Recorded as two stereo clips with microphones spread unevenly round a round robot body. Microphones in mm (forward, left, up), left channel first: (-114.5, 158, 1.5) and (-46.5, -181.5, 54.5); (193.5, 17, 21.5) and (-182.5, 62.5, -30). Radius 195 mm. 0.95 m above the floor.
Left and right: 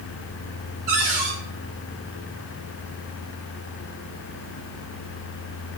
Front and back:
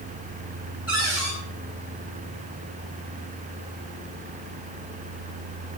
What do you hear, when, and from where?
0.9 s a cupboard door: 100° right, 5 m